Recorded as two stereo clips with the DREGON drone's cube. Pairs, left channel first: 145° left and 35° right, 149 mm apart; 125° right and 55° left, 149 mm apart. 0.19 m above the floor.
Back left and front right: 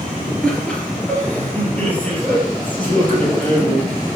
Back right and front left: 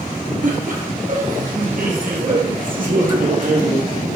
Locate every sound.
0.4 s laughter: 65° left, 2.5 m; by 3.8 s 70° left, 4.5 m